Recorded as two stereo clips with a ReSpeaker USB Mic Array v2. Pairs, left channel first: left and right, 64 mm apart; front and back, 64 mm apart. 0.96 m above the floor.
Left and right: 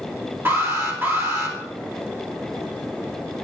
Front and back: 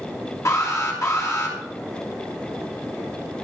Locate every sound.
0.5 s an alarm: 35° right, 3 m